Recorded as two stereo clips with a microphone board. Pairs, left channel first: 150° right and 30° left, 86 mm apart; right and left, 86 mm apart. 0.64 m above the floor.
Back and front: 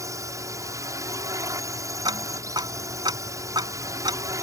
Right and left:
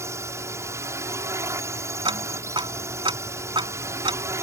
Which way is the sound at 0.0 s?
55° left.